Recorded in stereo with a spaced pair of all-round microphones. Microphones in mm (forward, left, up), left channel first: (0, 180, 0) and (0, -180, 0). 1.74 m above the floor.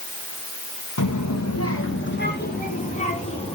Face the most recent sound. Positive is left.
turn(degrees=15)  # may be behind; listen again after turning